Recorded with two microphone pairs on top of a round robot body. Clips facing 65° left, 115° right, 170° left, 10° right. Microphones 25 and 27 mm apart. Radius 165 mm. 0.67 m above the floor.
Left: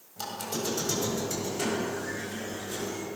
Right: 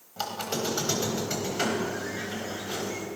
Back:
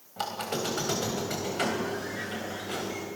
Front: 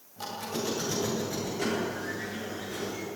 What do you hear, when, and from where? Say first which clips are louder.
0.2 s a squeak: right 3 dB, back 3 dB; 170° right, 3.5 m